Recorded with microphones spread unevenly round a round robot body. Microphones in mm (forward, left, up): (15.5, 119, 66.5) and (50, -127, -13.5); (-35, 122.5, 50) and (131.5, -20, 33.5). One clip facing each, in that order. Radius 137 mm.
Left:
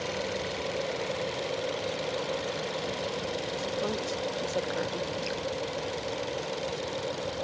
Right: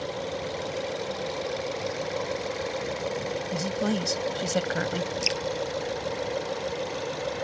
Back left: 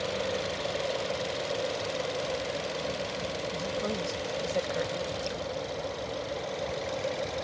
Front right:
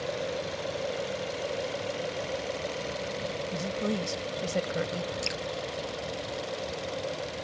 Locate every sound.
3.5 s a woman speaking: 90° right
5.2 s dripping: 75° right